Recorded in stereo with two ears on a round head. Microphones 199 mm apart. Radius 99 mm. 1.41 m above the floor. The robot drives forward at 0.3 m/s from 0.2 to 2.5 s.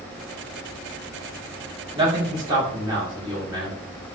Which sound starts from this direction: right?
A man speaking, at 1.9 s.